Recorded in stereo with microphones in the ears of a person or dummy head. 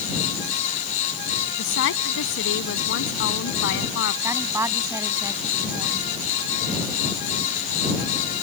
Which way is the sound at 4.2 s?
15° right (ahead or behind).